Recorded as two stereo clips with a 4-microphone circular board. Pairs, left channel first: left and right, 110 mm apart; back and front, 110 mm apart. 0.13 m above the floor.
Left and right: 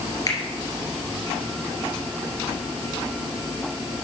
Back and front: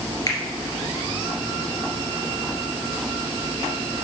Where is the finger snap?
135° left, 2.5 m.